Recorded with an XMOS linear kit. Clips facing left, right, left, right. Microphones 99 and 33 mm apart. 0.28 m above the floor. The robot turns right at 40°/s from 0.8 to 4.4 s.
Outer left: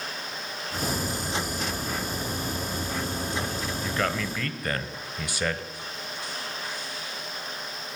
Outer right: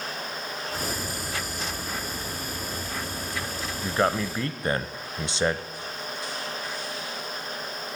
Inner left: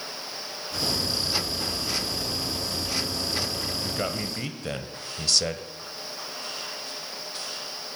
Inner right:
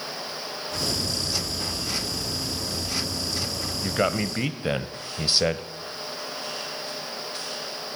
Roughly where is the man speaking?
Right.